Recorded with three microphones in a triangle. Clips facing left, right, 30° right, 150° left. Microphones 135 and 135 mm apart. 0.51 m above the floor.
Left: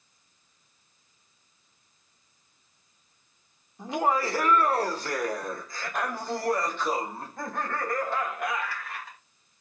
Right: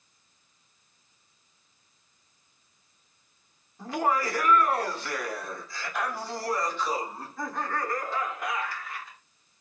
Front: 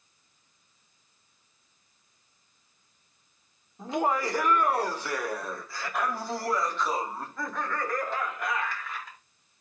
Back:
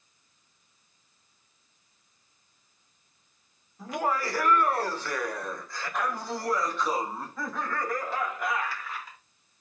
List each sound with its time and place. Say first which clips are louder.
3.8 s laughter: left 1 dB, front 2 dB; 25° left, 1.1 m; by 9.2 s 65° left, 3.5 m